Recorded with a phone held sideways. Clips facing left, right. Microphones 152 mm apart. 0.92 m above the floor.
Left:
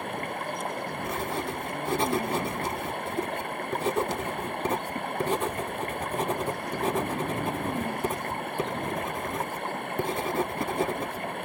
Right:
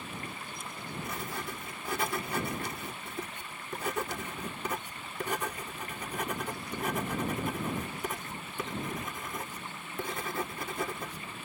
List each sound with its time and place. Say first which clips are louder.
0.0 s running water: left 10 dB; 60° left (ahead or behind)
1.0 s writing: left 8 dB; 30° left (ahead or behind)